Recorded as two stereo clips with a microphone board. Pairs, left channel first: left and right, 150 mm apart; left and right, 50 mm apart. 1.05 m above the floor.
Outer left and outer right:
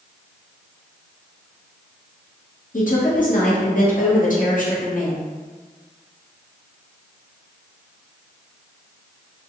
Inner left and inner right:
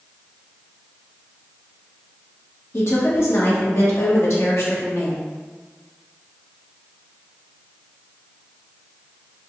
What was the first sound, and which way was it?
A woman speaking, 60° left (ahead or behind).